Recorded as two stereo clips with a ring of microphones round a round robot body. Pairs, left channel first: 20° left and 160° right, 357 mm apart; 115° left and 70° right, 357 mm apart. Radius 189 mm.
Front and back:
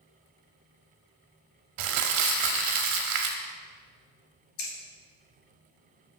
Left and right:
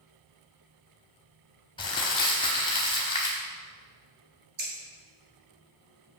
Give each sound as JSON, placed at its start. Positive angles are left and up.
{"t": 1.8, "sound": "crumpling", "azimuth_deg": -170, "distance_m": 0.7}
{"t": 4.6, "sound": "scissors", "azimuth_deg": 0, "distance_m": 1.7}